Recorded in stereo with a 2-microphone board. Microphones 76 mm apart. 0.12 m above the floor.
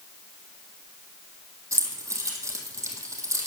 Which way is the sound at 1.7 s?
40° right (ahead or behind).